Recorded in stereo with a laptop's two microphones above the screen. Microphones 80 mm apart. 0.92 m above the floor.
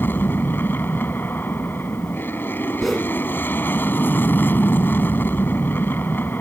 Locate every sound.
0.0 s an aircraft: 25° left (ahead or behind)
2.8 s a whoosh: centre (ahead or behind)